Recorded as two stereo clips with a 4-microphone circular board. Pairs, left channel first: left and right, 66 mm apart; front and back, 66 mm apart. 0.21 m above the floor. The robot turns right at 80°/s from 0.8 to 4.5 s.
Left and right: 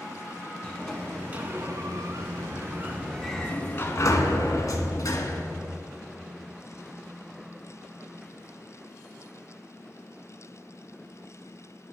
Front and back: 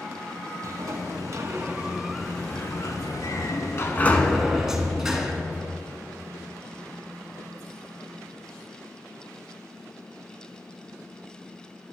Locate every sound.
0.6 s a sliding door: 165° left, 0.8 m; by 5.4 s 100° left, 0.8 m